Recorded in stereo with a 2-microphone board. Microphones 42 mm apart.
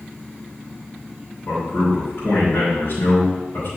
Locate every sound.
1.5 s a man speaking: 65° left (ahead or behind), 3 m